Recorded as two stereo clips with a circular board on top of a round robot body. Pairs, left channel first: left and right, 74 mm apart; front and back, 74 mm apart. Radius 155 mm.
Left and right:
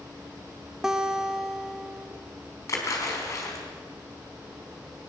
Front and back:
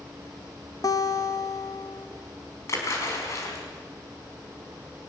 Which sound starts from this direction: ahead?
A guitar, at 0.8 s.